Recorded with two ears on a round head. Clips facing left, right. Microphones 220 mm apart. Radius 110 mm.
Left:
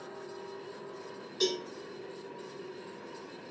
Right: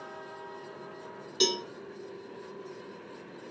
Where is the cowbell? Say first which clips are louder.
Right 1 dB; 50° right (ahead or behind), 1.1 m.